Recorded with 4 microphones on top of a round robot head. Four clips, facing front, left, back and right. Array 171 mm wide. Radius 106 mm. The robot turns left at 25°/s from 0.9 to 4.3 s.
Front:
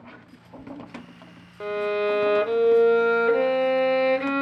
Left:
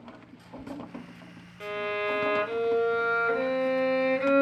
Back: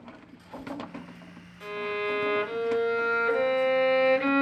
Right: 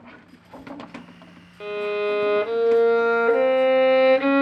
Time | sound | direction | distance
1.6 | a violin | 25° right | 0.5 m